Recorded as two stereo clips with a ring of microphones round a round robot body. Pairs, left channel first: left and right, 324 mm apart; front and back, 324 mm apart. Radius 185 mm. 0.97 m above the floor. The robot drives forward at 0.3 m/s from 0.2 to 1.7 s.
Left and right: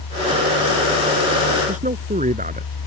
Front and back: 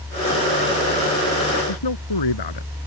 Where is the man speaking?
25° right.